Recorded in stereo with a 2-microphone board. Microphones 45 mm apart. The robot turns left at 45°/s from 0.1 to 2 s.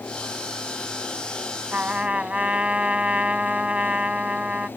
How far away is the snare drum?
No snare drum in this recording.